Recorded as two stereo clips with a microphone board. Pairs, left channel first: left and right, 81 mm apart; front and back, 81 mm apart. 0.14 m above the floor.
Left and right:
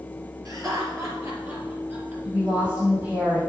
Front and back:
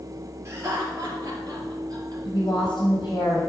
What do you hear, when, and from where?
0.5 s laughter: 130° right, 3.5 m; by 2.1 s 150° right, 3.5 m
2.2 s a woman speaking: 25° right, 4.5 m